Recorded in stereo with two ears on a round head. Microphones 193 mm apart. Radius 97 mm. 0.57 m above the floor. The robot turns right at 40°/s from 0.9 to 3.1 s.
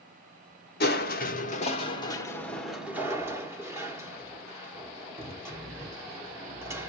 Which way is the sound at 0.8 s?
110° left.